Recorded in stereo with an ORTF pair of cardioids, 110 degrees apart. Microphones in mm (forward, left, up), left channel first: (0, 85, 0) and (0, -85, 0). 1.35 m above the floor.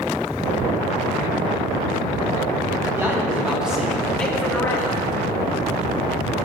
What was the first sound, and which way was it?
A man speaking, 15° right.